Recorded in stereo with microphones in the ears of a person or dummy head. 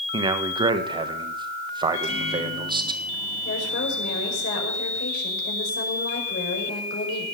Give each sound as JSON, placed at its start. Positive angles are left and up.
{"t": 0.1, "sound": "a man speaking", "side_deg": -25, "distance_m": 1.4}
{"t": 1.9, "sound": "a microwave", "side_deg": 75, "distance_m": 6.5}
{"t": 3.5, "sound": "a woman speaking", "side_deg": 65, "distance_m": 5.5}